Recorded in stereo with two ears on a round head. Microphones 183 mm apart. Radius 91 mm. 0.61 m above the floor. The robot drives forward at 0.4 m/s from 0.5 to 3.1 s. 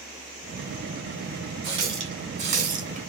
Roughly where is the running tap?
Right.